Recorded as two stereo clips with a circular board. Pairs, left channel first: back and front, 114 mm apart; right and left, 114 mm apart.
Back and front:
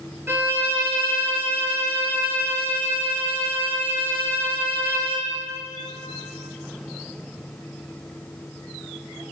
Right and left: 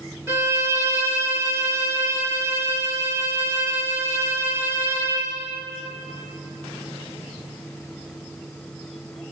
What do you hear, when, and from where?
0.3 s a violin: 50° left, 0.6 m